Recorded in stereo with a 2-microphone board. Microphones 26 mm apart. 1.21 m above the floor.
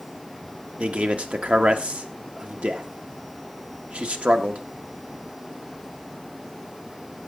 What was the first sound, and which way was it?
A man speaking, 55° right (ahead or behind).